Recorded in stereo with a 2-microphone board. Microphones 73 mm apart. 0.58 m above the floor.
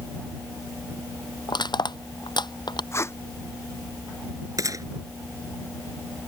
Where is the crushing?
85° left.